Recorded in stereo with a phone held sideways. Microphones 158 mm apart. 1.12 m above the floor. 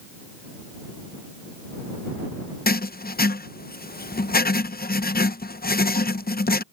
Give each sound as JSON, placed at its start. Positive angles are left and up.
{"t": 2.7, "sound": "writing", "side_deg": 70}